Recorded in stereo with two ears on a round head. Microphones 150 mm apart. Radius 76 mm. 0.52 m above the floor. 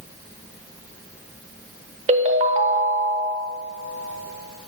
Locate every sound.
2.1 s a ringtone: 40° right (ahead or behind), 0.8 m